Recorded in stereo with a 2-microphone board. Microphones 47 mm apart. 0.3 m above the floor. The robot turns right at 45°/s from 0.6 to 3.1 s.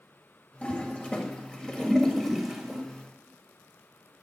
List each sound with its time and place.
0.6 s a toilet flushing: 30° left (ahead or behind), 1.6 m; by 2.8 s 10° right (ahead or behind), 1.6 m